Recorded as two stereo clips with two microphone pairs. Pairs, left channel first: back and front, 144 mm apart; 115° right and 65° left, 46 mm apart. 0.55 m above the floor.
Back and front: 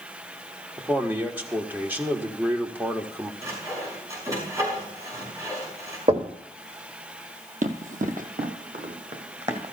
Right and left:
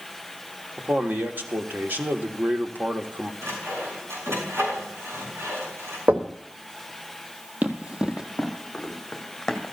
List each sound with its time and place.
0.8 s a man speaking: 70° left, 1.2 m
3.4 s sawing: 65° left, 6.5 m
6.1 s knocking: 30° left, 1.4 m
7.6 s running footsteps: 10° left, 1.3 m; by 9.7 s 40° right, 2 m